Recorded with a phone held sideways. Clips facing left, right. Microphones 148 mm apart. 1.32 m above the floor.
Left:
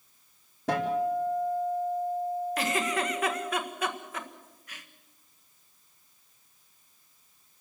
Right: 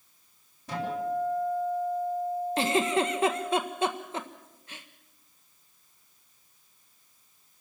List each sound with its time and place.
0.7 s a guitar: 75° left (ahead or behind), 4 m
2.6 s a giggle: 25° right (ahead or behind), 1.5 m